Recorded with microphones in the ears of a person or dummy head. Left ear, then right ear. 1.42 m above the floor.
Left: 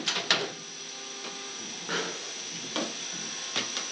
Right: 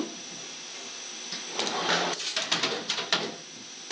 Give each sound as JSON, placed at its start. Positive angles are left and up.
{"t": 1.9, "sound": "a pop", "side_deg": -70, "distance_m": 1.0}